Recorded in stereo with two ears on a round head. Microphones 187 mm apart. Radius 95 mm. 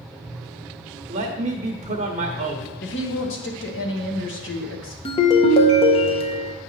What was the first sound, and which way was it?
A man speaking, 30° right (ahead or behind).